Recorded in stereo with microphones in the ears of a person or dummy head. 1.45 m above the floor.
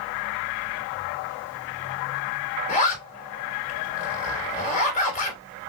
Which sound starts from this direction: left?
A zipper, at 2.7 s.